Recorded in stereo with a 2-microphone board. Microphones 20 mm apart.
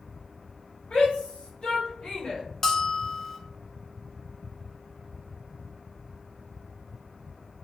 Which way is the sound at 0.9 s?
65° left (ahead or behind).